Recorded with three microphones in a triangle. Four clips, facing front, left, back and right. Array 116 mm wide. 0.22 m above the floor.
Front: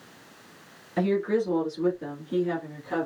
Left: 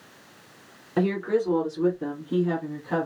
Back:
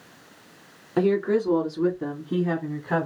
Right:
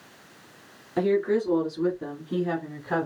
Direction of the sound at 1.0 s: 155° left.